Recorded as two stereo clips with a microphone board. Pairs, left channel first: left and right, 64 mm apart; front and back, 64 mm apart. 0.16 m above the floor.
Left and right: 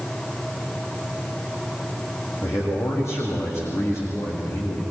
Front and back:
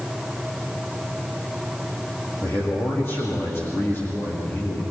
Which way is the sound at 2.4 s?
50° left.